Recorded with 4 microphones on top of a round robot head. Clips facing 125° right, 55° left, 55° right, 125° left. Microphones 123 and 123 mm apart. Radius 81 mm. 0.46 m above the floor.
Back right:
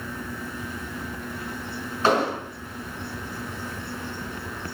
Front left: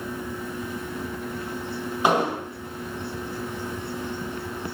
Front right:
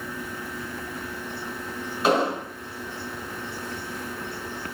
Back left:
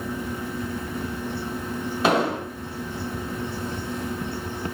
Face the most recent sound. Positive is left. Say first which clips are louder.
# even, even
turn(degrees=130)